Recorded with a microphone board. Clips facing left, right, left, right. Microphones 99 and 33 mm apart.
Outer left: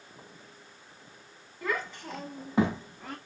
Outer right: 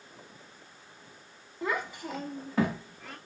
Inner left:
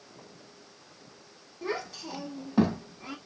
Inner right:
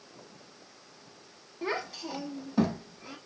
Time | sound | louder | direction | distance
1.6 | a child speaking | outer right 1 dB, inner right 1 dB | 25° right (ahead or behind) | 0.8 m